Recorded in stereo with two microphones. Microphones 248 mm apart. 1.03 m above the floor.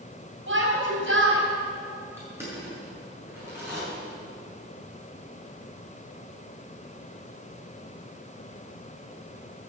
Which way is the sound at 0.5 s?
55° right (ahead or behind).